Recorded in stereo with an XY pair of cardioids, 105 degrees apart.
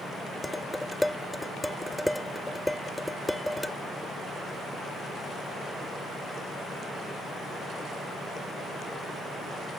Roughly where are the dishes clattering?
Ahead.